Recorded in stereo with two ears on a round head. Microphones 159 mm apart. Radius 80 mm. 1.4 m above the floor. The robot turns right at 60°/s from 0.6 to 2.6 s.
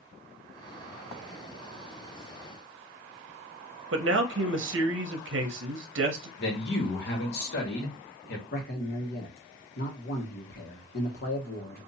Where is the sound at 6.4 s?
55° left (ahead or behind), 1.5 m.